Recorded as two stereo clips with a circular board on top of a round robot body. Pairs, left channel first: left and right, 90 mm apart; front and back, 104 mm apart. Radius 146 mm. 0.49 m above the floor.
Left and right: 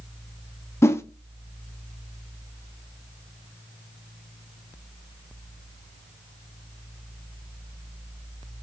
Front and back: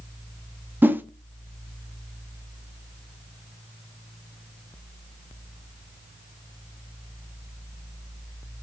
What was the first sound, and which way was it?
A whoosh, 120° left.